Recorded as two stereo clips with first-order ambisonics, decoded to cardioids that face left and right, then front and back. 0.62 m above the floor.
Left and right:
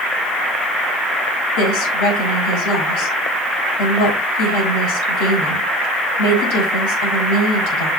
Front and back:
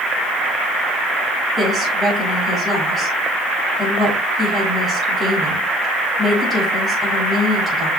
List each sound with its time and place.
1.6 s a woman speaking: 95° left, 4.5 m